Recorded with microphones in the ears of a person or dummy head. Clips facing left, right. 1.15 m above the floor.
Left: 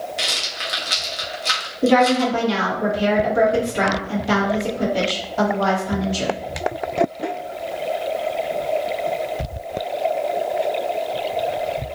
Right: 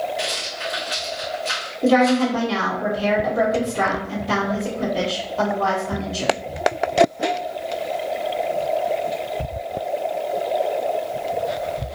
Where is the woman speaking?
70° left (ahead or behind), 1.5 m.